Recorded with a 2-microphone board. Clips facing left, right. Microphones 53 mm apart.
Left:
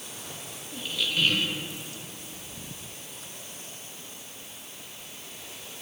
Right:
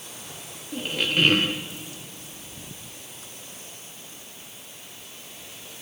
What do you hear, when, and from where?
0.7 s a squeak: 50° right (ahead or behind), 0.9 m